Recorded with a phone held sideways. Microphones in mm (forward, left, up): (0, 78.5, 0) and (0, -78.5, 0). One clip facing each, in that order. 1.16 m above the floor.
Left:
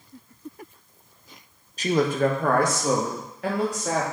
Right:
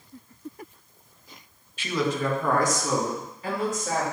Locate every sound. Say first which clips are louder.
1.8 s a man speaking: left 5 dB; 40° left (ahead or behind), 0.6 m; by 4.0 s 70° left (ahead or behind), 2.5 m